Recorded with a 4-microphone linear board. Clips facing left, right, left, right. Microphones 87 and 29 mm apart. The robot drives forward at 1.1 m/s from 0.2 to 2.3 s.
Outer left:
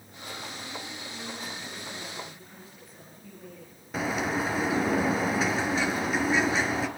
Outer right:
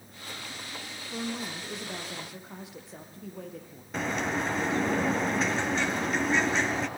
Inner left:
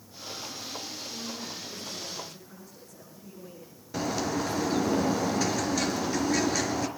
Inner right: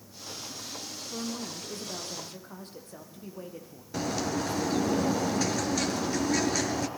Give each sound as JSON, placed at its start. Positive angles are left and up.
{"t": 1.1, "sound": "a woman speaking", "side_deg": -70, "distance_m": 9.0}
{"t": 3.9, "sound": "a bird", "side_deg": 5, "distance_m": 4.0}